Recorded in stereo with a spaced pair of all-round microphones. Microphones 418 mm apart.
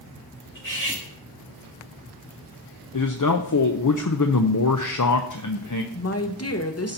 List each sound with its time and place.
0.6 s cutlery clinking: 45° left (ahead or behind), 3.5 m
2.9 s a man speaking: 45° left (ahead or behind), 0.6 m
5.9 s a woman speaking: 35° left (ahead or behind), 0.8 m